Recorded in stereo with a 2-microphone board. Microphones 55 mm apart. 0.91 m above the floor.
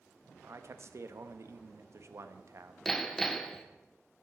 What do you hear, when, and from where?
0.4 s a man speaking: 55° right (ahead or behind), 0.7 m
2.9 s hammering: 5° left (ahead or behind), 0.6 m